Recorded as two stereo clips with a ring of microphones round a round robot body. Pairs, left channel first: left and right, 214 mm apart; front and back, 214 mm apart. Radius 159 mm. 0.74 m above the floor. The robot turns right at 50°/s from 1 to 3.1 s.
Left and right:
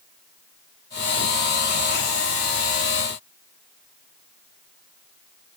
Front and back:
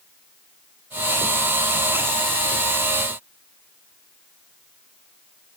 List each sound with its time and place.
Only background noise.